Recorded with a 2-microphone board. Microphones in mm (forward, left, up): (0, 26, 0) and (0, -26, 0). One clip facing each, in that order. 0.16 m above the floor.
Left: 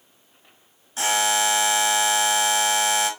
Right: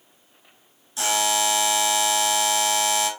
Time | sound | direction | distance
1.0 | a buzzer | 35° left (ahead or behind) | 1.1 m